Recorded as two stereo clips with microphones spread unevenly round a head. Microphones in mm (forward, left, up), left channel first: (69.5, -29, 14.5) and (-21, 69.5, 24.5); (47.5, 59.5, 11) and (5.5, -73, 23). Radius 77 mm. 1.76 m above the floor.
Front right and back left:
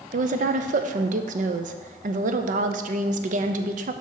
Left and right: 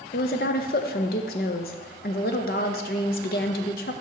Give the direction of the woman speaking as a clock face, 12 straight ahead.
8 o'clock.